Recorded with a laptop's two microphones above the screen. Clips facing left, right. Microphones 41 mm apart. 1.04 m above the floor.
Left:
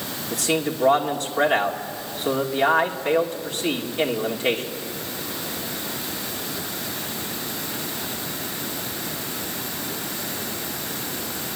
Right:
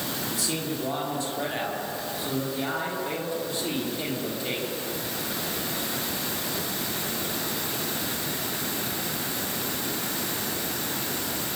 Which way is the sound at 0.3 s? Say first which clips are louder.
Left 10 dB; 60° left (ahead or behind).